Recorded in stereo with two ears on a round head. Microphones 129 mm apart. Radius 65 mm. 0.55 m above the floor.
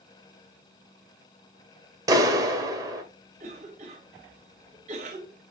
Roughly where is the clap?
Right.